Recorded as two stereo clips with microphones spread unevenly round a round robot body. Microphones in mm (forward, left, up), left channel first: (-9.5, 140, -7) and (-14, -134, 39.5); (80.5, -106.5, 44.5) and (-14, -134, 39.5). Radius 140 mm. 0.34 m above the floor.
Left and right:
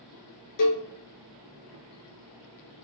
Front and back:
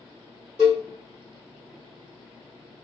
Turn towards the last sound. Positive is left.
turn(degrees=110)